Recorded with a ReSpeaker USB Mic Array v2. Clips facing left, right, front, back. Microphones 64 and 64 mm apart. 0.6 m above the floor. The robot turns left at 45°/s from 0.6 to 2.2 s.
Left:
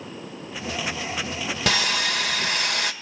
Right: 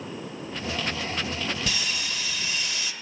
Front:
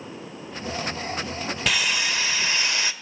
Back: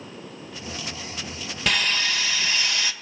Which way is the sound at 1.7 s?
90° left.